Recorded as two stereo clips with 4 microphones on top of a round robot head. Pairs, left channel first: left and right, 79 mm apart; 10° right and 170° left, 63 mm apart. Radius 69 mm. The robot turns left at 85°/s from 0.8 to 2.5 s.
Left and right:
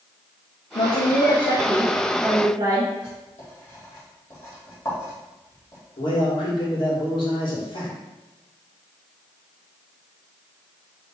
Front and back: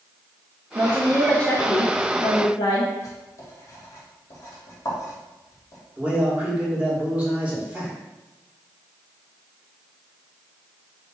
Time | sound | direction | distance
0.8 | a woman speaking | 110° left | 0.6 m
3.0 | writing | 25° left | 1.7 m
6.0 | a man speaking | 100° left | 1.9 m